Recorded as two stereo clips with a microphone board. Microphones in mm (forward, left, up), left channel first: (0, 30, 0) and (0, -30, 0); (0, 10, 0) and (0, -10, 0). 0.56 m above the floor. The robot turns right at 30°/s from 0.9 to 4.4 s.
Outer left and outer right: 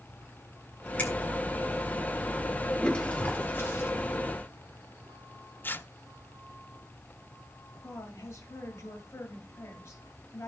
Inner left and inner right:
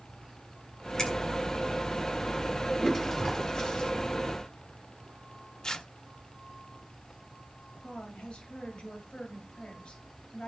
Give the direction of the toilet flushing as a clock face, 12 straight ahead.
12 o'clock.